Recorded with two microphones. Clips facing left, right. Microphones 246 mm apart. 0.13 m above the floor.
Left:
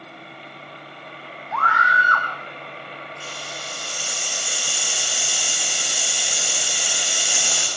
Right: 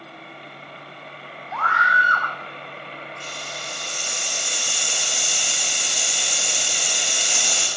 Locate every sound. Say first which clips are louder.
1.5 s a scream: left 1 dB; 80° left, 8 m
3.2 s a hiss: even; 5° left (ahead or behind), 5.5 m